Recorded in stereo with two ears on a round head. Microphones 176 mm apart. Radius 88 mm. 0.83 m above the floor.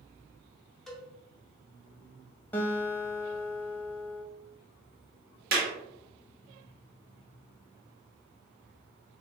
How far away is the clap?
About 1.2 m.